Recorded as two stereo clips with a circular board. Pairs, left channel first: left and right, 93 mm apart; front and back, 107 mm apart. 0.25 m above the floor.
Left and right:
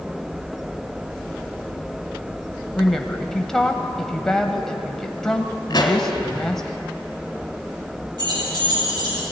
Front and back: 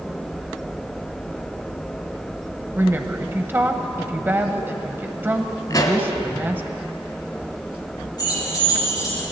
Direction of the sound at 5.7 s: 50° left.